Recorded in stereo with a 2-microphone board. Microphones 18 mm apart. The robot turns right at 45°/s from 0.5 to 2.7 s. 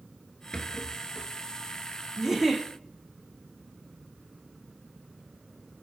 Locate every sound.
0.5 s a rattle: 45° left (ahead or behind), 0.9 m; by 1.3 s 15° left (ahead or behind), 0.9 m
2.2 s a giggle: 15° right (ahead or behind), 1.3 m; by 2.6 s 35° right (ahead or behind), 1.3 m